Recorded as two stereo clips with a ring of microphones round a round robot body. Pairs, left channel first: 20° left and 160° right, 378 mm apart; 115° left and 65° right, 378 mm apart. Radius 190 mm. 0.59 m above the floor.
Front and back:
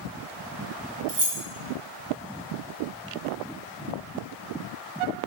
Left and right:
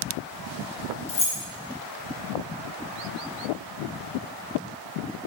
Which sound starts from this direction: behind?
Keys jangling, at 1.1 s.